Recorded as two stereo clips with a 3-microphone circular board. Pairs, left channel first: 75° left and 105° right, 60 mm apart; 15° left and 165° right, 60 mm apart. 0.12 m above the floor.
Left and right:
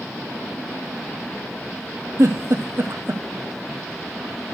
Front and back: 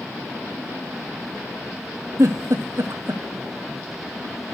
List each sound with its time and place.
2.2 s a giggle: 140° right, 1.0 m